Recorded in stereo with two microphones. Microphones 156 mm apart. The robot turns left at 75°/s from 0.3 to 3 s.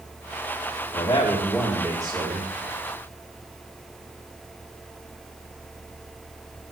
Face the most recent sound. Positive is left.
turn(degrees=-100)